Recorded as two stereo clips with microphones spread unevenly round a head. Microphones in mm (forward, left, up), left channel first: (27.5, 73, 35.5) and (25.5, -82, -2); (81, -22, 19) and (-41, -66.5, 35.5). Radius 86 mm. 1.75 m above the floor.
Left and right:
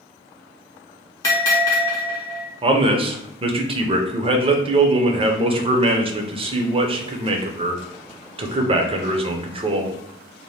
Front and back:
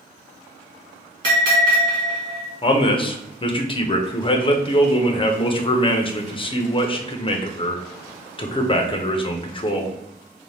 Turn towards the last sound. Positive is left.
turn(degrees=-30)